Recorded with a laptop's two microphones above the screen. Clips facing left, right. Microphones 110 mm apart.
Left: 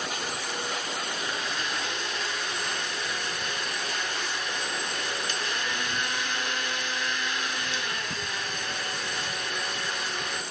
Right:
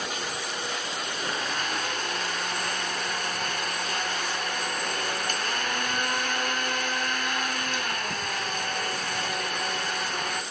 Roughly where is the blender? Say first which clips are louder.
Right 1 dB; right.